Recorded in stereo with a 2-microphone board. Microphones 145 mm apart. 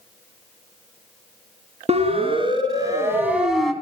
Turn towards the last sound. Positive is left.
turn(degrees=5)  # may be behind; listen again after turning